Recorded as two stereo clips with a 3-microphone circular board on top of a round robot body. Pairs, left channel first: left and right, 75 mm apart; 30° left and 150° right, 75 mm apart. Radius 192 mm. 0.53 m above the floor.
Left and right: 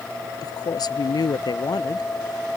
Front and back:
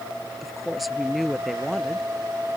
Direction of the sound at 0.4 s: 120° left.